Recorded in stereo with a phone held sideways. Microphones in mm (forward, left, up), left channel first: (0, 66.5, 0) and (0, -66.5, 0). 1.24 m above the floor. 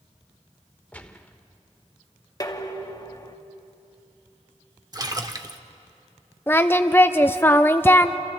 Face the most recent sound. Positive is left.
turn(degrees=15)  # may be behind; listen again after turning